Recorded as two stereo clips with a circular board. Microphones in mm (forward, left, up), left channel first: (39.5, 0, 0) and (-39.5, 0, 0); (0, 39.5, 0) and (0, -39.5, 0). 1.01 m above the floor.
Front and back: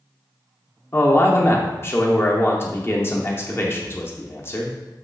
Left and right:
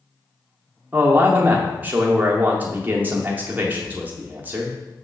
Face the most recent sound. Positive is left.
turn(degrees=-35)